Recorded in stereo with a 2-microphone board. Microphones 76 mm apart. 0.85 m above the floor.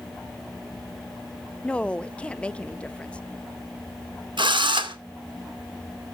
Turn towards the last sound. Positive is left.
turn(degrees=-80)